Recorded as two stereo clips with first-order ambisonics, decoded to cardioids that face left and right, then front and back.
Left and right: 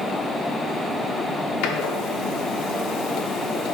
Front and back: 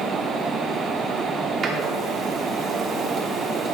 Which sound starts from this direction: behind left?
A door slam, at 1.6 s.